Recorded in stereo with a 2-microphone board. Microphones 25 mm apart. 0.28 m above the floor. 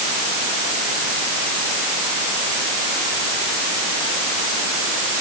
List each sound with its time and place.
Only background noise.